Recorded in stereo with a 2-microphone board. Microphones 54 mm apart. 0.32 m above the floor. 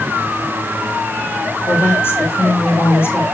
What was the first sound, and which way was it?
A woman speaking, 50° left (ahead or behind).